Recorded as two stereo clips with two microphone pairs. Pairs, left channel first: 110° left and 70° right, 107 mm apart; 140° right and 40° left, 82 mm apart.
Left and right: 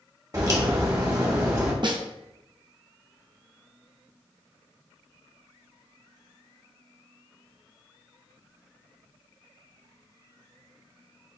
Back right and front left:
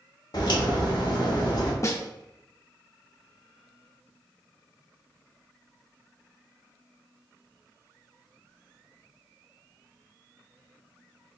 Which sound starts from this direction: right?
A snare drum, at 1.8 s.